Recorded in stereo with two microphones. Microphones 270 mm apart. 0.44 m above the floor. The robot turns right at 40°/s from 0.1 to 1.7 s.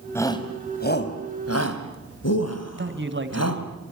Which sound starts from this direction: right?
A man speaking, at 2.8 s.